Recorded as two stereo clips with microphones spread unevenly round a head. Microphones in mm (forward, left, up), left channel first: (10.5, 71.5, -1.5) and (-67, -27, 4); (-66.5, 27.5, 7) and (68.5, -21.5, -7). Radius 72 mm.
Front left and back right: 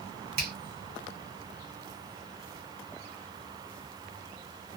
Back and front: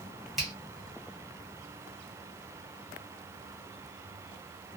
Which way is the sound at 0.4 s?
110° right.